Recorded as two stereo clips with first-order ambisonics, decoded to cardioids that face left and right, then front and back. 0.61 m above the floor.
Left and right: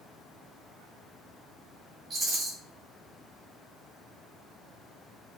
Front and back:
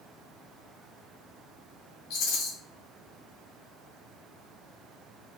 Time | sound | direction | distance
2.1 | a rattle | 15° right | 1.1 m